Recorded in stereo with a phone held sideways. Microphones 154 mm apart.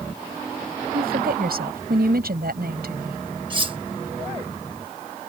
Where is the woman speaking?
85° right.